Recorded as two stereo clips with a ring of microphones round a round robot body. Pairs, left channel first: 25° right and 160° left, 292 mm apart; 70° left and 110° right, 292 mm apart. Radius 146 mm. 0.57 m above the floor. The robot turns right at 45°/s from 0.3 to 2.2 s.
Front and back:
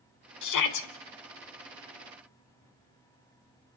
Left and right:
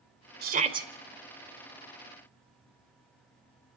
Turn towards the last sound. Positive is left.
turn(degrees=25)